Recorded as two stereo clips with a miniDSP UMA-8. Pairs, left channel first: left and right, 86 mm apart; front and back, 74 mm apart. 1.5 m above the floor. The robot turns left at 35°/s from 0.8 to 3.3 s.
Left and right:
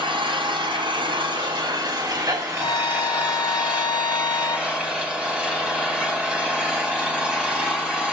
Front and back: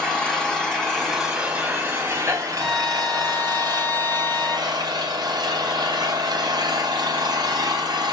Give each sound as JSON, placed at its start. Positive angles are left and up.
{"t": 0.0, "sound": "an engine running", "azimuth_deg": -80, "distance_m": 4.0}
{"t": 2.6, "sound": "a violin", "azimuth_deg": 90, "distance_m": 0.8}